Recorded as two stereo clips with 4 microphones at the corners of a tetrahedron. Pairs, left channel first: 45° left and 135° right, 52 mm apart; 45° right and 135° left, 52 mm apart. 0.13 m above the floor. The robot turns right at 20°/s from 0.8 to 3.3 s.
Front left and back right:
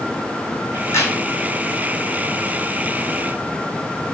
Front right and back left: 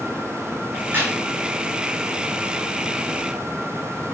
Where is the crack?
75° left, 2 m; by 1.1 s 85° left, 2 m.